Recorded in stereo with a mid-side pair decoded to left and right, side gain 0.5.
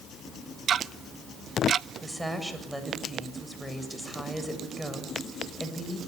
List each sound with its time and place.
0.7 s ticking: 50° right, 0.7 m
2.0 s a woman speaking: straight ahead, 7.5 m